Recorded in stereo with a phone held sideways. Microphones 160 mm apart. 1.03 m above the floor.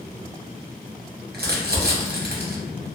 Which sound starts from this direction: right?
Crumpling, at 1.3 s.